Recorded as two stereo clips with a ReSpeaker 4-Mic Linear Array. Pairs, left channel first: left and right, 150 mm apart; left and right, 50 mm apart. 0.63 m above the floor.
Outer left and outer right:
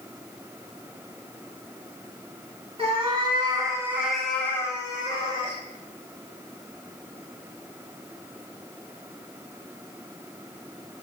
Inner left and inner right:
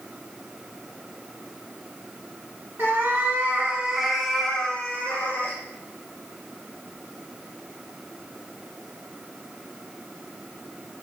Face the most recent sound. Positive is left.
turn(degrees=30)  # may be behind; listen again after turning